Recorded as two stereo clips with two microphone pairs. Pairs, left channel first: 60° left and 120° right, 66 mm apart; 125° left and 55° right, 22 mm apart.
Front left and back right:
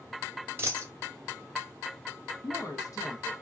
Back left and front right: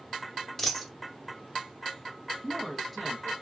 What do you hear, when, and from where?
0.6 s a dropped coin: 170° right, 0.9 m
2.4 s a woman speaking: 35° left, 0.9 m